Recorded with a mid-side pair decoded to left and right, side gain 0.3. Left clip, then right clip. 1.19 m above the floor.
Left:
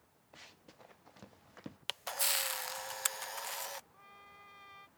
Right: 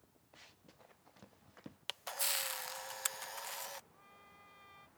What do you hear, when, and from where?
0.3 s running footsteps: 45° left
1.9 s a camera shutter: 35° left
3.9 s a trumpet: 50° left